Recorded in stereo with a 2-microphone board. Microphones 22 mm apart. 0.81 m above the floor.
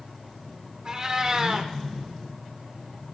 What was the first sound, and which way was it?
A cat meowing, 35° right (ahead or behind).